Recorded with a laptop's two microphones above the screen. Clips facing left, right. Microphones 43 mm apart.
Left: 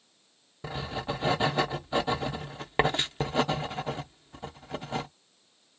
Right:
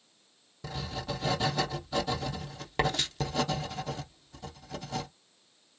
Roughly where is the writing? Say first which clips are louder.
Left 3 dB; left.